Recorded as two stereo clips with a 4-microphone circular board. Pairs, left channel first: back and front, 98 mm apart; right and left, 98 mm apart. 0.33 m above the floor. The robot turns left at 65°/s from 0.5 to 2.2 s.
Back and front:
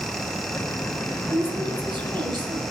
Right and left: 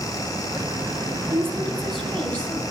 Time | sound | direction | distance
1.3 | a woman speaking | 40° left | 2.5 m